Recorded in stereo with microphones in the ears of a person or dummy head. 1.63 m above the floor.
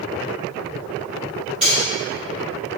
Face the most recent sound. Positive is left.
turn(degrees=0)  # may be behind; listen again after turning